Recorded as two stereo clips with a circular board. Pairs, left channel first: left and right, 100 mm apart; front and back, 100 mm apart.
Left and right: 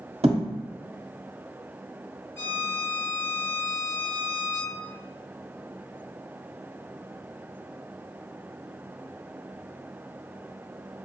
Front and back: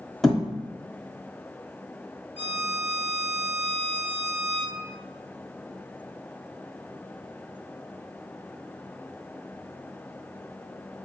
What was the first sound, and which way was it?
A thud, 90° right.